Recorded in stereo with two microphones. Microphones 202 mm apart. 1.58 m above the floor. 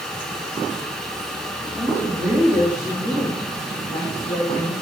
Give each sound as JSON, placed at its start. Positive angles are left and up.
{"t": 1.8, "sound": "a woman speaking", "side_deg": -20, "distance_m": 4.5}